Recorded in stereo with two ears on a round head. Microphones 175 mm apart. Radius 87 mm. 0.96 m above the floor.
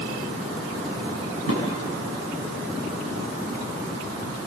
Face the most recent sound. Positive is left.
turn(degrees=85)